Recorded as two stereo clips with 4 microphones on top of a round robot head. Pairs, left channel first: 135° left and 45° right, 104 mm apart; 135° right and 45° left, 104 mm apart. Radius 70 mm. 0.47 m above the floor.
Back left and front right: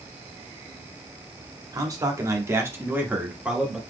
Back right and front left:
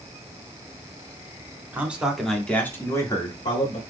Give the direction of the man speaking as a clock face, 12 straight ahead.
1 o'clock.